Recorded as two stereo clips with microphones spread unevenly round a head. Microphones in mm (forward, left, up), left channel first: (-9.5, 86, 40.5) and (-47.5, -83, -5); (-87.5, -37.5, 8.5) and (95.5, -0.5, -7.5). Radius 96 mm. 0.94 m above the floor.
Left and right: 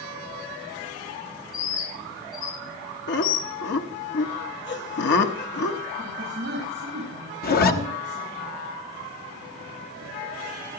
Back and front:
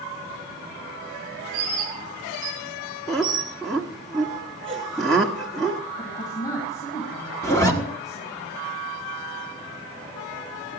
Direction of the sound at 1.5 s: 80° left.